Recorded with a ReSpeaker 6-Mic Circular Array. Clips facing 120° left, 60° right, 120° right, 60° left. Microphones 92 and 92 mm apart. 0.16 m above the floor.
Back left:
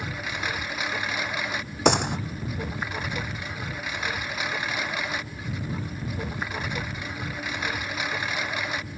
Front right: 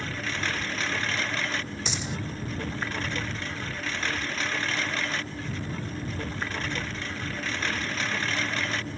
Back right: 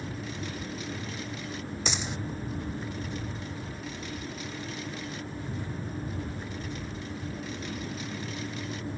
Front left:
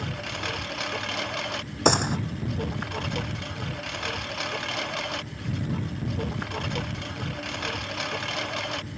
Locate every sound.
0.0 s a lawn mower: 40° left
1.9 s a gunshot: 90° left